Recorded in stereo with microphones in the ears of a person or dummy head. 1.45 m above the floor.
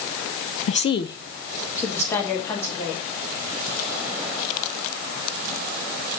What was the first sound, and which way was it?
A woman speaking, 45° left (ahead or behind).